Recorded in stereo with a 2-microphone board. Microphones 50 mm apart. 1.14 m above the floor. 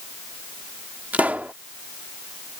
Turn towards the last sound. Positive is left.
turn(degrees=-30)  # may be behind; listen again after turning